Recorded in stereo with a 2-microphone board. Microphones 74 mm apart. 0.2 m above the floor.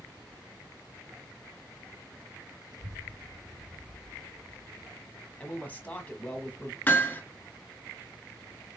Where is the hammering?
25° left (ahead or behind), 1.0 m.